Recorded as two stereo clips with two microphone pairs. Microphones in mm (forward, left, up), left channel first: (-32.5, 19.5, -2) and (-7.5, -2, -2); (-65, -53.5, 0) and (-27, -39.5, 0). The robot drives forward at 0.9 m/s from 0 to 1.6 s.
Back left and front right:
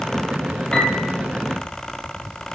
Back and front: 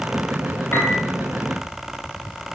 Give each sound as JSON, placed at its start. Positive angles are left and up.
{"t": 0.7, "sound": "a piano", "azimuth_deg": -165, "distance_m": 4.0}